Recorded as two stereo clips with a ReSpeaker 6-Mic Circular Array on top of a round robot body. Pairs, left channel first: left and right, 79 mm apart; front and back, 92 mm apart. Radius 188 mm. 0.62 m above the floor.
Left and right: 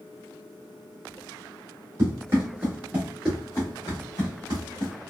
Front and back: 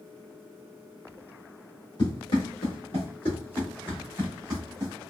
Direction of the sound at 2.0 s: 35° right.